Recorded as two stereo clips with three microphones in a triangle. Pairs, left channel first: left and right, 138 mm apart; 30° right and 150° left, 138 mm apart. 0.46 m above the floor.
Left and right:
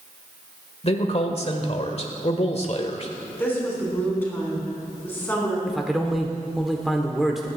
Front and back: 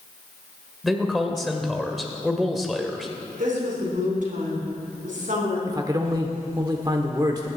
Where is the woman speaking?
165° left, 3.5 m.